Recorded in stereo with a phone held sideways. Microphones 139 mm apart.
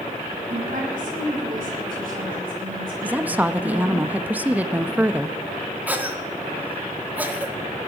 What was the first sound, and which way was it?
A woman speaking, 75° right (ahead or behind).